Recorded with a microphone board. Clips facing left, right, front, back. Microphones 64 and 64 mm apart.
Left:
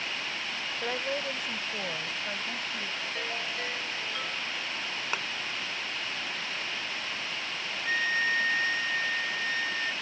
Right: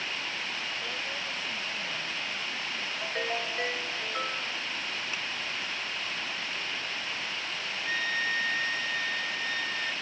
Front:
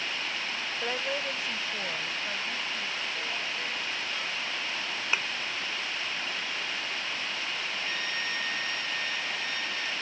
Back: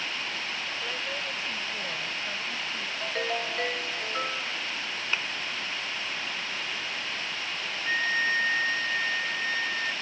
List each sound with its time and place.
0.8 s a woman speaking: 55° left; by 2.9 s 90° left
3.0 s a ringtone: 150° right
5.1 s a thud: 75° left
7.8 s a flute: 160° left